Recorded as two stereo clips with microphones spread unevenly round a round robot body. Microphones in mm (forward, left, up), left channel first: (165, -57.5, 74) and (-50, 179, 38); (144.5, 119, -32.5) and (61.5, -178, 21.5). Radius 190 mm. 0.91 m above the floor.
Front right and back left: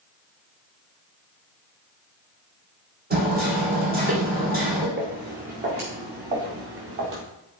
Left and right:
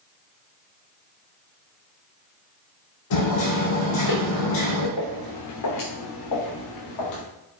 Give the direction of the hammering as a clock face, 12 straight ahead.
10 o'clock.